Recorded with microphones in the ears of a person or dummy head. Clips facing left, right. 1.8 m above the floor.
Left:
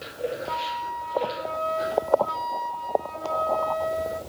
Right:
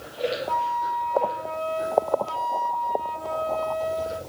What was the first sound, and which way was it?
A flute, 30° left (ahead or behind).